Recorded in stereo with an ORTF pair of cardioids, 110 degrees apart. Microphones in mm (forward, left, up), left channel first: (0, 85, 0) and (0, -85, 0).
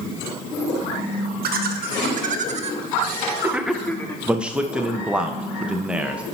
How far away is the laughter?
About 1.3 m.